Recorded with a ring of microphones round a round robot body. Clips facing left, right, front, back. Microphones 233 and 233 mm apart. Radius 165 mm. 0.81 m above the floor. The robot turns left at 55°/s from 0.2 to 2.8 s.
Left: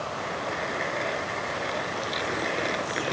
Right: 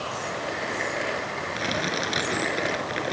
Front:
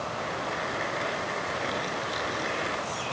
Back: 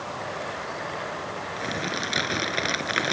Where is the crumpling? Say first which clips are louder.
Right 5 dB, back 1 dB; 115° right; by 3.1 s straight behind.